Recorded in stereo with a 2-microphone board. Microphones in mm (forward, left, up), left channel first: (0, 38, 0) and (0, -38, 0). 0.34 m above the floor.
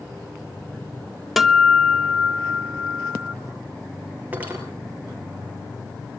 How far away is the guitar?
About 0.7 m.